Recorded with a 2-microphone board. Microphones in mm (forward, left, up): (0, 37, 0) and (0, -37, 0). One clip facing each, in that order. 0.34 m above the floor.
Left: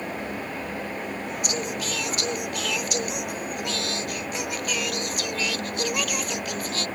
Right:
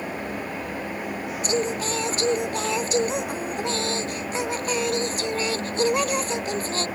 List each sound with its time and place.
1.4 s singing: 30° right (ahead or behind)